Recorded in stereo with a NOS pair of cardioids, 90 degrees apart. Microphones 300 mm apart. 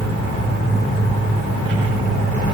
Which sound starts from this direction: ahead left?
An insect, at 0.0 s.